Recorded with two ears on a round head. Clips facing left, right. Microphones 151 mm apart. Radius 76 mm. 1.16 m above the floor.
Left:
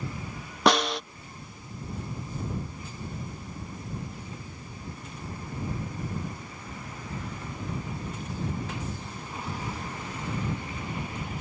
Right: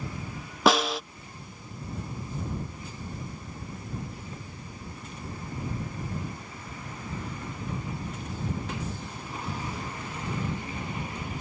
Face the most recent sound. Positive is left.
turn(degrees=0)  # may be behind; listen again after turning